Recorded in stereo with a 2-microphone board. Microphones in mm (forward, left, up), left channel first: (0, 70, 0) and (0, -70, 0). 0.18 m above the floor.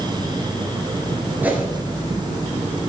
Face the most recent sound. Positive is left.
turn(degrees=-15)  # may be behind; listen again after turning